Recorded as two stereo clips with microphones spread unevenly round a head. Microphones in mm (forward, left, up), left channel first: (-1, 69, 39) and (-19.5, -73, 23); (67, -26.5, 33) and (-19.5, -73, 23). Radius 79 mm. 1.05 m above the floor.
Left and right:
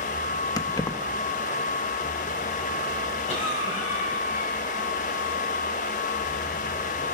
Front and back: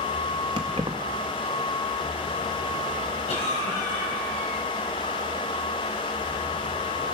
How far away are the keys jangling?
About 0.6 m.